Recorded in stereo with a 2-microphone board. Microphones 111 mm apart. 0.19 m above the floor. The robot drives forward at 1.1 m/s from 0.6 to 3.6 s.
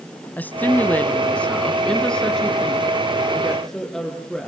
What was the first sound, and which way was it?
A woman speaking, 15° left (ahead or behind).